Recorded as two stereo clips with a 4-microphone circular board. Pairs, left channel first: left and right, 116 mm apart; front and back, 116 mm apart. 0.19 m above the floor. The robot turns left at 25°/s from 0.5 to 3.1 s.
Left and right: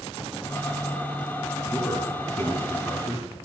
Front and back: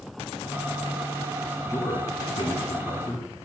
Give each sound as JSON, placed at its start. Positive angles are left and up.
{"t": 1.7, "sound": "a man speaking", "azimuth_deg": 45, "distance_m": 1.8}